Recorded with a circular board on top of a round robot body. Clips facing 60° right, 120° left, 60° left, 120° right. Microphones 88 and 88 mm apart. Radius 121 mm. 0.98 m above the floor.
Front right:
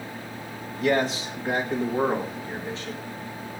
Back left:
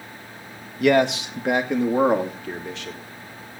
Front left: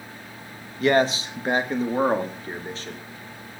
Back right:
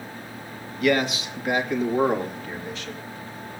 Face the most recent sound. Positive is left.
turn(degrees=120)